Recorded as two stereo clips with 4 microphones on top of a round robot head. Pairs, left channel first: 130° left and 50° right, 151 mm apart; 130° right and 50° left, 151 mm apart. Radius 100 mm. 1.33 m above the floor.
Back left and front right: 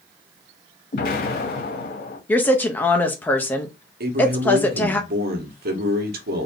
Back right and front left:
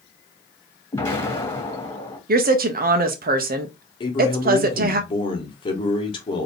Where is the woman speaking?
55° left, 0.8 m.